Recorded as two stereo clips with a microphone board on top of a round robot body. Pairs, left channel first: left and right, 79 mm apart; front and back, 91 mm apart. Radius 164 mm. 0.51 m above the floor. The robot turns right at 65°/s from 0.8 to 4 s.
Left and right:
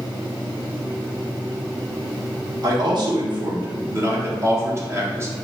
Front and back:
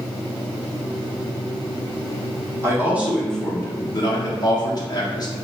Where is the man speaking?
125° right, 1.3 m; by 5.3 s 40° right, 1.3 m.